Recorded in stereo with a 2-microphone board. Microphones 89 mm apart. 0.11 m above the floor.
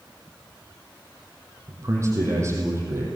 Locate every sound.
1.7 s a man speaking: 35° right (ahead or behind), 5 m